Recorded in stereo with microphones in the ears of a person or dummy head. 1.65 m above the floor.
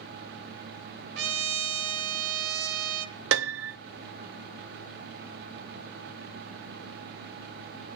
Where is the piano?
70° right (ahead or behind), 0.8 m.